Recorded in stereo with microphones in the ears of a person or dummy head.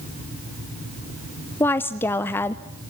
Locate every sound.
1.6 s a woman speaking: 10° left (ahead or behind), 0.7 m